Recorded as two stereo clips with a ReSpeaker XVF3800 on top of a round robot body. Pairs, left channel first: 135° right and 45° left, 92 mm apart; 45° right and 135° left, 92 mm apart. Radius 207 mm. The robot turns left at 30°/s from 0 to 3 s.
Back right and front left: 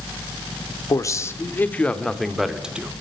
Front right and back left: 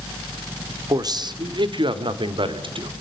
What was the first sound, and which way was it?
A man speaking, straight behind.